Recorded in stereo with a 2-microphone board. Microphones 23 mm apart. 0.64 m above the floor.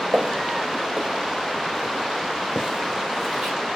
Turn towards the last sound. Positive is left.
turn(degrees=-20)  # may be behind; listen again after turning